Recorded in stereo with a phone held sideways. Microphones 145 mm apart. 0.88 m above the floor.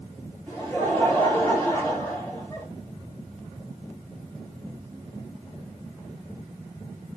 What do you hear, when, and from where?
0.5 s laughter: 20° left (ahead or behind), 3 m